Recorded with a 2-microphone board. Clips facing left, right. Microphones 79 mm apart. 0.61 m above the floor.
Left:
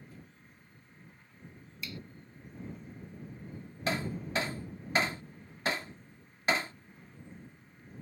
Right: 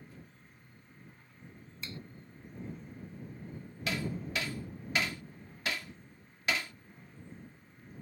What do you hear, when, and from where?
1.8 s a finger snap: 30° right (ahead or behind)
3.9 s hammering: 35° left (ahead or behind)